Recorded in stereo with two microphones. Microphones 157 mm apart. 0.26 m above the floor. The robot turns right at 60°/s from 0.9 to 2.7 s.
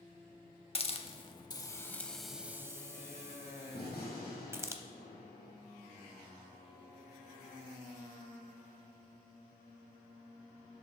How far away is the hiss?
About 0.6 m.